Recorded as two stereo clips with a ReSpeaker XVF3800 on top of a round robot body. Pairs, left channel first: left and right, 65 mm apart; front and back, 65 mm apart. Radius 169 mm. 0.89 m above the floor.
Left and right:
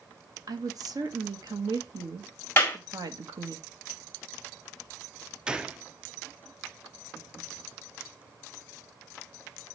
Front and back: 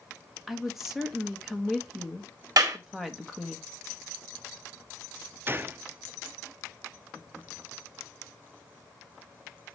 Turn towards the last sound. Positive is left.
turn(degrees=-155)